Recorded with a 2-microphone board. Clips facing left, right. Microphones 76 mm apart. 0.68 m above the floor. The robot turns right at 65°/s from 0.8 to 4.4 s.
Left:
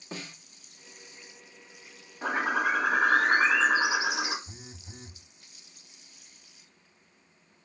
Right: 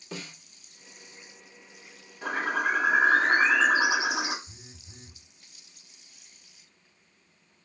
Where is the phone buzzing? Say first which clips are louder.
Left 5 dB; 45° left (ahead or behind), 0.6 m.